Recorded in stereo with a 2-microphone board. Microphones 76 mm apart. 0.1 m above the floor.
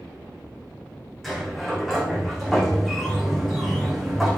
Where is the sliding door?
5° left (ahead or behind), 4.5 m.